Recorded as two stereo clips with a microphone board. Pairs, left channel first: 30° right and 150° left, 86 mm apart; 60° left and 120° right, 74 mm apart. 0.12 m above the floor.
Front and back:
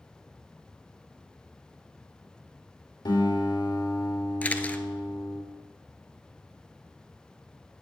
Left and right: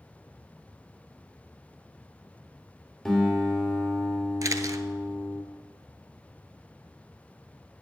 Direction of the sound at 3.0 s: 30° right.